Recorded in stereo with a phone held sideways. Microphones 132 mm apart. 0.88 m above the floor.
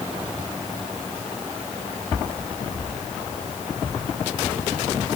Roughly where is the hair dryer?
No hair dryer in this recording.